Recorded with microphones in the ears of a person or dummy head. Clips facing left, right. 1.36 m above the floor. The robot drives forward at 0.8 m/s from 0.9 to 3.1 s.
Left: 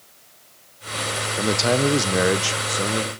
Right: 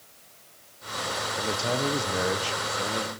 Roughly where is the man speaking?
Left.